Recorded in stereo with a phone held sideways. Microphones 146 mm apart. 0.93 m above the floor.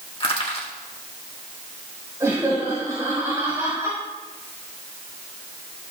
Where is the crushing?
35° left (ahead or behind), 2 m.